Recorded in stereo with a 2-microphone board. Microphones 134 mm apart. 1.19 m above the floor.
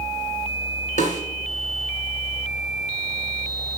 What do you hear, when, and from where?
1.0 s a snare drum: 65° left (ahead or behind), 2.5 m